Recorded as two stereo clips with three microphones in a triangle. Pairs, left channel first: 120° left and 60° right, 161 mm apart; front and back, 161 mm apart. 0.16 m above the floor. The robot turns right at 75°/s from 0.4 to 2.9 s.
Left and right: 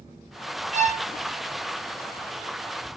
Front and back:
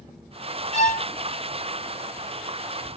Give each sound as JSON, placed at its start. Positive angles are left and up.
{"t": 0.7, "sound": "a violin", "azimuth_deg": -40, "distance_m": 0.8}